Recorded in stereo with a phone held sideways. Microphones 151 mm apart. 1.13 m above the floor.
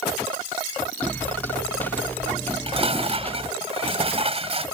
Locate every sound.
1.0 s footsteps: 10° left (ahead or behind)
2.5 s dishes clattering: 40° right (ahead or behind)